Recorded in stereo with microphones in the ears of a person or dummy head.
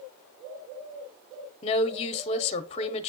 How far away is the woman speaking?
About 0.8 m.